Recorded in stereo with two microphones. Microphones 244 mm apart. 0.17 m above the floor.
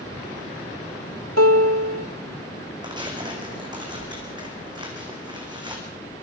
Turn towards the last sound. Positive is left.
turn(degrees=-20)  # may be behind; listen again after turning